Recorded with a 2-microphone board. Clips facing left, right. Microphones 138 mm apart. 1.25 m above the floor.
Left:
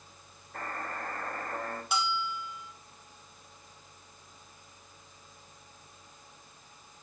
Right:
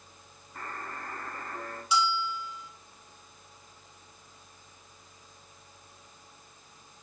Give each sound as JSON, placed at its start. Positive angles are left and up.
{"t": 0.5, "sound": "a buzzer", "side_deg": 85, "distance_m": 5.0}
{"t": 1.9, "sound": "a bell", "side_deg": 55, "distance_m": 1.7}